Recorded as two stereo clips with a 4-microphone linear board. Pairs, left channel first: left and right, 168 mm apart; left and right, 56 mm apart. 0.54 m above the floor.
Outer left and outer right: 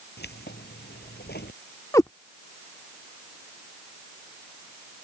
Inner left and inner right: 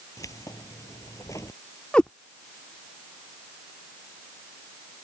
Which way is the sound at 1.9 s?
20° left (ahead or behind).